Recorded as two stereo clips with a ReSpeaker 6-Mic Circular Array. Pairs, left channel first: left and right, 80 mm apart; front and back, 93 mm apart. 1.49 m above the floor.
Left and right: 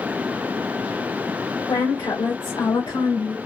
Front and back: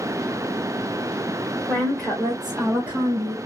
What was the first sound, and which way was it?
A woman speaking, 75° left.